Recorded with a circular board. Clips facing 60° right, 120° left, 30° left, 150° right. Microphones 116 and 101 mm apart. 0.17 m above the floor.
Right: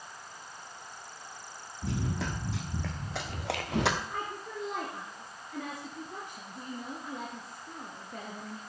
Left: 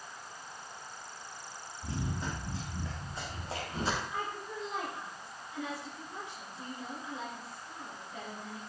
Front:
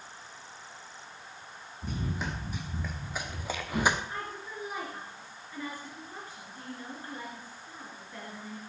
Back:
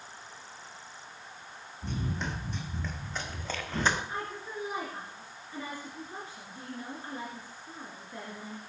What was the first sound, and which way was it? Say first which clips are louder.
Running footsteps: right 4 dB, even; 55° right.